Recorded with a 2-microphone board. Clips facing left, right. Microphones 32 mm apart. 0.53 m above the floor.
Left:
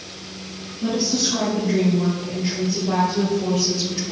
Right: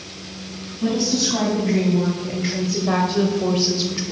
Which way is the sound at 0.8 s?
60° right (ahead or behind).